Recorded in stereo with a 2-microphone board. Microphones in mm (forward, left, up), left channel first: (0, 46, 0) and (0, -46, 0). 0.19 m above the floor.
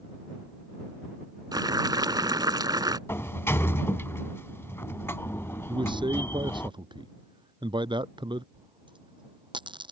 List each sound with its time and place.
1.5 s boiling: 50° right (ahead or behind)
3.1 s a sliding door: 25° left (ahead or behind)
5.7 s a man speaking: 55° right (ahead or behind)
8.5 s a dropped coin: 60° right (ahead or behind)